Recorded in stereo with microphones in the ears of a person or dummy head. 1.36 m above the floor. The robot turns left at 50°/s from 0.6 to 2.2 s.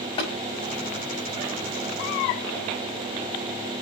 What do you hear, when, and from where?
0.2 s tapping: 25° left (ahead or behind), 5.5 m